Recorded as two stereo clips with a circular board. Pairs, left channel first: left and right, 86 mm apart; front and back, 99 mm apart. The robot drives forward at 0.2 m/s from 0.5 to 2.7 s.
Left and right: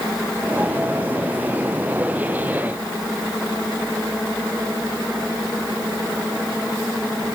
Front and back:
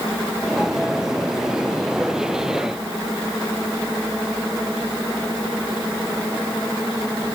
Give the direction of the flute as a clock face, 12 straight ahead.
No flute in this recording.